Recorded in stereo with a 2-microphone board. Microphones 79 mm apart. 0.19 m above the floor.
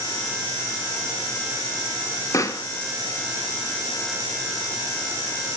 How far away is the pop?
About 1.4 m.